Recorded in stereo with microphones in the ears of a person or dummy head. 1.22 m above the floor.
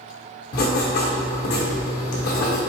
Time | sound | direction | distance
0.5 | writing | 50° left (ahead or behind) | 0.9 m